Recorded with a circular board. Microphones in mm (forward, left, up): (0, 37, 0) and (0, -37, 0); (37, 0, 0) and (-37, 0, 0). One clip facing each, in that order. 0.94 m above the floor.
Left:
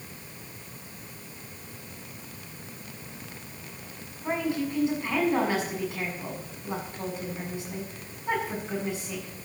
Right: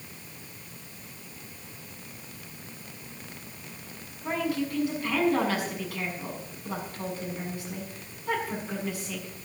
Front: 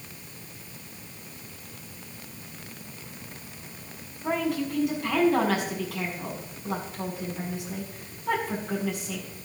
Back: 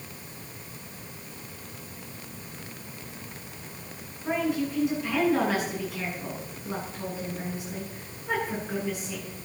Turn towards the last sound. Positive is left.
turn(degrees=20)